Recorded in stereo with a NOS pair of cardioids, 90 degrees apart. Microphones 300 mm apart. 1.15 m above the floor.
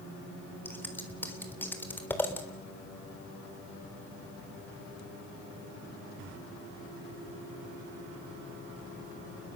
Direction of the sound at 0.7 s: 5° left.